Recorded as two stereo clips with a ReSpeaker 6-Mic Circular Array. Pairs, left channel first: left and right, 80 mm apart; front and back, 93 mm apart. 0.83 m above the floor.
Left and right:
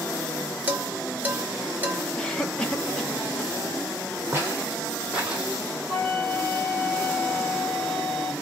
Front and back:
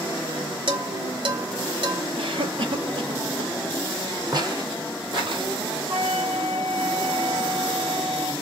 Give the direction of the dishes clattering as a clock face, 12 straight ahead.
5 o'clock.